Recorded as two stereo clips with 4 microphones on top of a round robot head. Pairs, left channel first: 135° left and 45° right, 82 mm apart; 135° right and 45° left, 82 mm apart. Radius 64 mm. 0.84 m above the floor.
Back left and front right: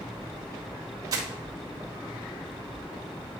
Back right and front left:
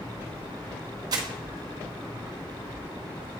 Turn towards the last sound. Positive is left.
turn(degrees=5)